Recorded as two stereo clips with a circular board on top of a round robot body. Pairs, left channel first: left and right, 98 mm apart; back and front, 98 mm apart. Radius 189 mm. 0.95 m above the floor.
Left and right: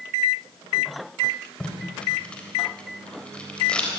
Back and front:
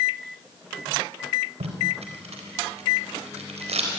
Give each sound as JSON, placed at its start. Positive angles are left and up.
{"t": 1.6, "sound": "tape being pulled", "azimuth_deg": 10, "distance_m": 4.0}